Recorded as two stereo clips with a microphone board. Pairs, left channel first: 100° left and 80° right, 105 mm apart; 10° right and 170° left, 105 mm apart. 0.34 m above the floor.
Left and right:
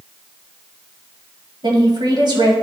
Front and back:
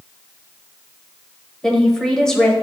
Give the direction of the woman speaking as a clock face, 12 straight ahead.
3 o'clock.